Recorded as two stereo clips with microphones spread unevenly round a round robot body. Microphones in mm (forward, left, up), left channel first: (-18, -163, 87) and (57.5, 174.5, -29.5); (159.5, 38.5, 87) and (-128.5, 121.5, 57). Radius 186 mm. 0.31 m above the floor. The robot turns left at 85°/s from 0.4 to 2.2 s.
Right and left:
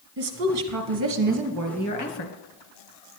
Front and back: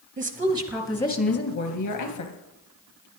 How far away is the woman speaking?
About 3 m.